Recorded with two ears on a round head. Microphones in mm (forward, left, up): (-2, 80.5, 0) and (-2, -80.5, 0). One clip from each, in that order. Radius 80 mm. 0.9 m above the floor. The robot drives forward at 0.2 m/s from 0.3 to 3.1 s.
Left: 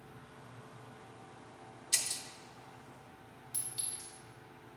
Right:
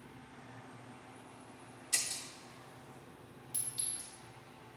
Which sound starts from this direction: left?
Breaking glass, at 1.9 s.